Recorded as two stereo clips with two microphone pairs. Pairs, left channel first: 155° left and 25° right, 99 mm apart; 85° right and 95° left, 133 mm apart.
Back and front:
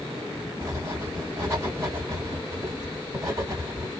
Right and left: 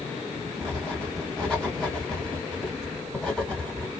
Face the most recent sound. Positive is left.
turn(degrees=0)